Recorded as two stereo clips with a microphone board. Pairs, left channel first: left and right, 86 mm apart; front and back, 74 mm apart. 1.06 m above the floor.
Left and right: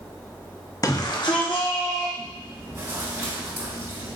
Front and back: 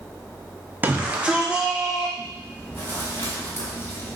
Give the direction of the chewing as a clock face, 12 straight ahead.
1 o'clock.